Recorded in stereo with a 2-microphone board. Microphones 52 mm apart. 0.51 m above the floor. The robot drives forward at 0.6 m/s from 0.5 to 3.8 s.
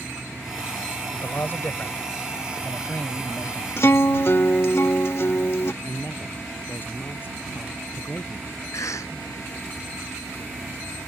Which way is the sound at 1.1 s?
50° left (ahead or behind).